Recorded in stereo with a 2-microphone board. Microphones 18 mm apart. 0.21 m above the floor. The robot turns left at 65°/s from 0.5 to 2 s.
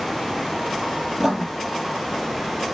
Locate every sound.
1.2 s writing: 30° right (ahead or behind), 1.8 m; by 1.4 s 50° right (ahead or behind), 1.8 m